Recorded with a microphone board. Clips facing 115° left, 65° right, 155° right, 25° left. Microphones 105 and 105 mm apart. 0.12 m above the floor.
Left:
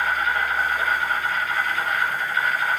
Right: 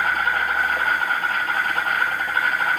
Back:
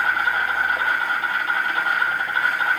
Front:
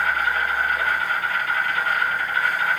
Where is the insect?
100° right, 4.5 m.